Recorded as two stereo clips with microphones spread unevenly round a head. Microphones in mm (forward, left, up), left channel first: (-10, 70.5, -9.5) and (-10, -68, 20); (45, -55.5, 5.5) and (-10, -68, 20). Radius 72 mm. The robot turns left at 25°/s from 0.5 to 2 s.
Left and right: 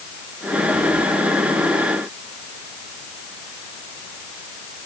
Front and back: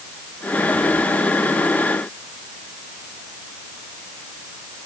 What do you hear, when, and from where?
Only background noise.